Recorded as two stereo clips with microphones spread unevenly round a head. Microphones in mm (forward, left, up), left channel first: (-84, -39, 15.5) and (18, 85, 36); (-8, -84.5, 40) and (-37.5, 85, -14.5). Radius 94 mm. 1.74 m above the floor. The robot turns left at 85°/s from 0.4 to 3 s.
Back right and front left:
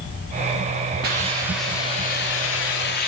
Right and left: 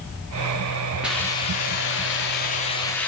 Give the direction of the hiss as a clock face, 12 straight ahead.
12 o'clock.